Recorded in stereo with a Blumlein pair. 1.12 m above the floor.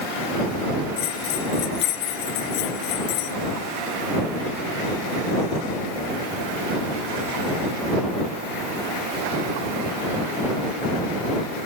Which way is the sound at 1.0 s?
40° left.